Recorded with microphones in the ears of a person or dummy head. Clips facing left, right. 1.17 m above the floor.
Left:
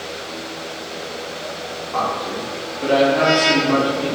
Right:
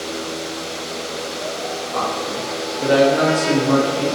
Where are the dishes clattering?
I don't hear dishes clattering.